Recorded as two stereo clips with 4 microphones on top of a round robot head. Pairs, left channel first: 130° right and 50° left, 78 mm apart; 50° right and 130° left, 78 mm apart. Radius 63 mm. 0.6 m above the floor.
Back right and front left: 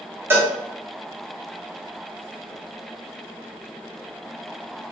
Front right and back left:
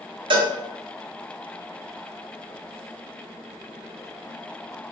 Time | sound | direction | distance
0.3 | a cowbell | 110° left | 0.9 m